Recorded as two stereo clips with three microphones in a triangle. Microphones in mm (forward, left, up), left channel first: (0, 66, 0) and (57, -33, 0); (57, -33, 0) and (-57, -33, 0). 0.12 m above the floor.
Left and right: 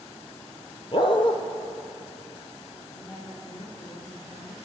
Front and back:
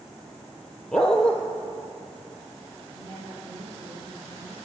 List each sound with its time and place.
0.9 s a dog barking: 80° left, 1.2 m
2.9 s a woman speaking: 150° left, 3 m